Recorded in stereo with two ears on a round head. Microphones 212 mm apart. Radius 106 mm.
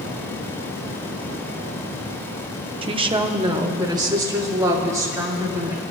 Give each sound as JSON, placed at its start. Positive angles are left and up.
{"t": 2.8, "sound": "a woman speaking", "side_deg": -20, "distance_m": 0.6}